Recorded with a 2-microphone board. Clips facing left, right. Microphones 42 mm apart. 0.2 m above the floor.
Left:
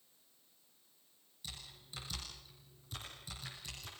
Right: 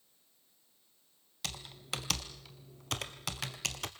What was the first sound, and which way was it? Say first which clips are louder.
Typing on a keyboard: right 10 dB; 80° right.